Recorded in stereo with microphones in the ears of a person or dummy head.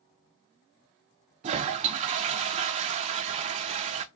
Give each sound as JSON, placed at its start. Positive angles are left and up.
{"t": 1.4, "sound": "a toilet flushing", "side_deg": -35, "distance_m": 0.5}